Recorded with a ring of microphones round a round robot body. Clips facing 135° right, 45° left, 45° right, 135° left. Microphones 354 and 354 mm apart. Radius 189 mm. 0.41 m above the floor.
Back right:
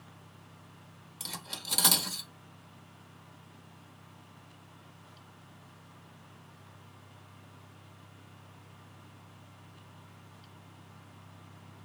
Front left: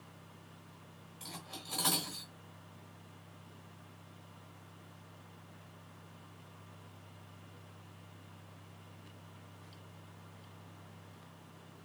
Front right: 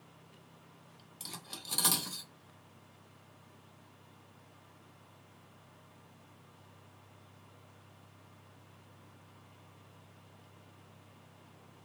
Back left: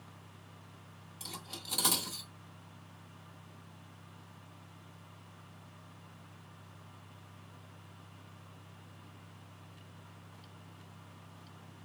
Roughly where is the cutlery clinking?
Behind right.